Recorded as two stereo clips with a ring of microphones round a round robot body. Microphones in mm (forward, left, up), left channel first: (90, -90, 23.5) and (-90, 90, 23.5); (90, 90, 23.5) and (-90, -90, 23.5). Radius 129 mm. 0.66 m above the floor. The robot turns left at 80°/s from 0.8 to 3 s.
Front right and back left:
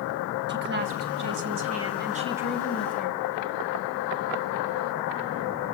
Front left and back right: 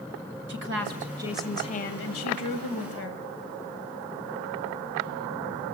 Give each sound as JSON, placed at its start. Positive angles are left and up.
{"t": 0.5, "sound": "a woman speaking", "azimuth_deg": 180, "distance_m": 3.5}